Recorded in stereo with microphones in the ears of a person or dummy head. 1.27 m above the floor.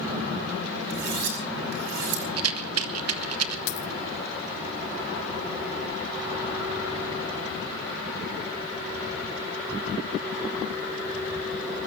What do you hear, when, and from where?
0.9 s cutlery clinking: 50° right (ahead or behind), 4.5 m
2.4 s a rattle: 80° right, 1.6 m
3.7 s a dropped coin: 65° left (ahead or behind), 1.3 m